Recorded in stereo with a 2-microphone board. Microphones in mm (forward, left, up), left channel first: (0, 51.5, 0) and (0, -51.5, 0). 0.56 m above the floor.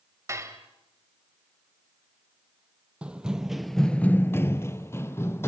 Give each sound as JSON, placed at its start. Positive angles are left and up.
{"t": 0.3, "sound": "dishes clattering", "side_deg": -30, "distance_m": 1.9}
{"t": 3.0, "sound": "running footsteps", "side_deg": -10, "distance_m": 1.1}